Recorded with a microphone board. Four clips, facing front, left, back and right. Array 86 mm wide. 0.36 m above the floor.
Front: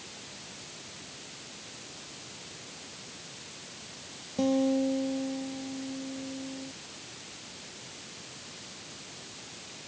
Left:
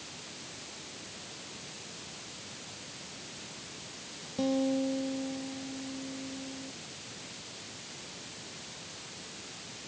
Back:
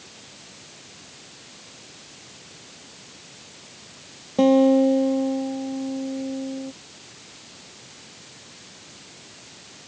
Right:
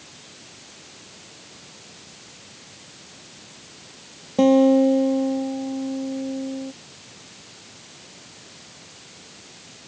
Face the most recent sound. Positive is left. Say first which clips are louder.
# right 15 dB, back 11 dB
turn(degrees=-135)